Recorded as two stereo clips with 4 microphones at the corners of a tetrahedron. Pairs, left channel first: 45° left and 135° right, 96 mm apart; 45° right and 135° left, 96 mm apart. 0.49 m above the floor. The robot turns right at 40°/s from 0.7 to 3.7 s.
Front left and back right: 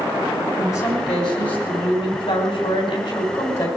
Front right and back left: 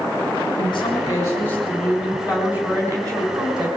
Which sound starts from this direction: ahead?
A woman speaking, at 0.6 s.